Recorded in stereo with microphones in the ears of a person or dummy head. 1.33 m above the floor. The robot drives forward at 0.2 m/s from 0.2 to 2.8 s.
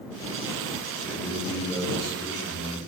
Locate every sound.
1.1 s a man speaking: 10° right (ahead or behind), 0.5 m; by 2.8 s 5° right (ahead or behind), 0.9 m